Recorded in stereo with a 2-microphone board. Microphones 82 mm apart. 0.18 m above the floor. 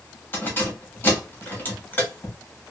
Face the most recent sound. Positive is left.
turn(degrees=25)  # may be behind; listen again after turning